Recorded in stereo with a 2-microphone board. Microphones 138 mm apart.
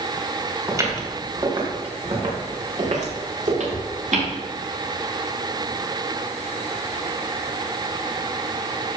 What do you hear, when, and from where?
0.7 s footsteps: 25° right (ahead or behind), 4.5 m; by 4.3 s 80° right, 5.5 m